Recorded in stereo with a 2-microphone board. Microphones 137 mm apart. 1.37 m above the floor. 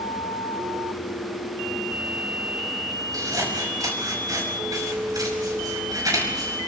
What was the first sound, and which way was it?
Scissors, 25° right (ahead or behind).